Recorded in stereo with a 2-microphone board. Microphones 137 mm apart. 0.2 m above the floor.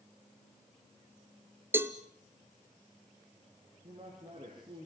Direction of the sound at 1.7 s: 15° right (ahead or behind).